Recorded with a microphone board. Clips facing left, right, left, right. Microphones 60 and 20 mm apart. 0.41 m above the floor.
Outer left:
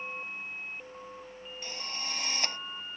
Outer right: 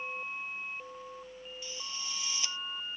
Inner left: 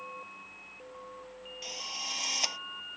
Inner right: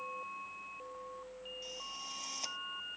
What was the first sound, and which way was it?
A drill, 50° left (ahead or behind).